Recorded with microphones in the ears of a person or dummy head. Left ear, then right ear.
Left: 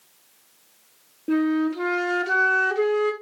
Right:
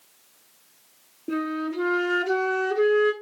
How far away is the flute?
About 0.6 m.